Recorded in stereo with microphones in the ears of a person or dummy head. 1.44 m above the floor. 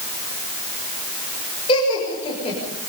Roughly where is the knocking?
No knocking in this recording.